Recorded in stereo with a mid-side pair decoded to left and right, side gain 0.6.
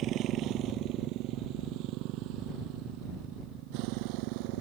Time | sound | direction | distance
0.0 | a motorcycle | 60° right | ?